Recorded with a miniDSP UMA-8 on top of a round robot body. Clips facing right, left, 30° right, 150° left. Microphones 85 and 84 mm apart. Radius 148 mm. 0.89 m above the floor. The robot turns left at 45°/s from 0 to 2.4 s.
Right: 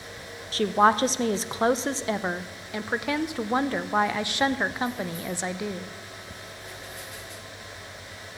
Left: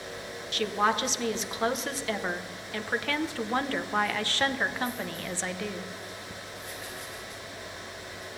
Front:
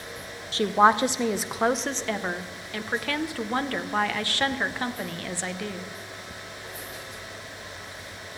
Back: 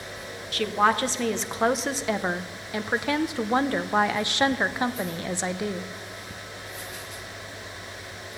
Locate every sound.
0.5 s a woman speaking: 70° right, 0.8 m; by 5.9 s 150° right, 0.8 m